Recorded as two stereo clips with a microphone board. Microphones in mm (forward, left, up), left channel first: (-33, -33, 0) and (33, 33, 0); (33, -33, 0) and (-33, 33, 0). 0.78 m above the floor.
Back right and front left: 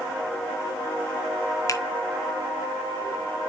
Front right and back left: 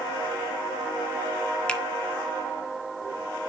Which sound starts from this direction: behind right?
A finger snap, at 1.7 s.